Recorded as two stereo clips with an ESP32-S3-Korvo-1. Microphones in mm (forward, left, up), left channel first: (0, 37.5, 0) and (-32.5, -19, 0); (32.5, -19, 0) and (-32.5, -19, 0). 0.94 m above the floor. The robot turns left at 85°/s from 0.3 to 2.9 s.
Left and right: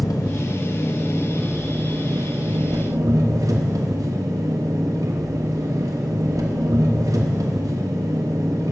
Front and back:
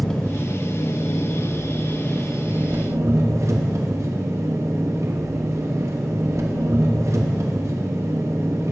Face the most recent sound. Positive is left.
turn(degrees=-145)